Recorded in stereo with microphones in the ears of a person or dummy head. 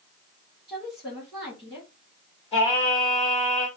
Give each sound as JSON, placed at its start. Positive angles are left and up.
{"t": 0.7, "sound": "a woman speaking", "side_deg": -5, "distance_m": 0.9}
{"t": 2.5, "sound": "singing", "side_deg": 25, "distance_m": 0.9}